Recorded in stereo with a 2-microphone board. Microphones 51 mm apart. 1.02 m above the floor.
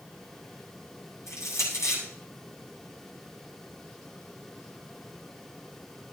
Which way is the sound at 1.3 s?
85° left.